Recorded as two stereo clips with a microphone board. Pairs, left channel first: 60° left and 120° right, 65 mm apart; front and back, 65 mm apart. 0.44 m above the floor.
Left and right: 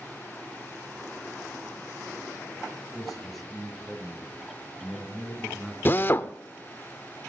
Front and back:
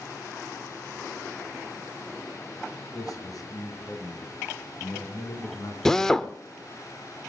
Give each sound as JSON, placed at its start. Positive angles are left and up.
{"t": 2.9, "sound": "a man speaking", "azimuth_deg": -30, "distance_m": 7.5}
{"t": 5.8, "sound": "a drill", "azimuth_deg": 75, "distance_m": 0.6}